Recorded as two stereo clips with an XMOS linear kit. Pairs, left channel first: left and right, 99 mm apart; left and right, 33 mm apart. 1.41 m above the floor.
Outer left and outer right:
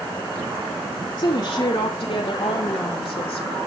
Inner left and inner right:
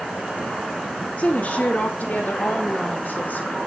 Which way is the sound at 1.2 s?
65° left (ahead or behind).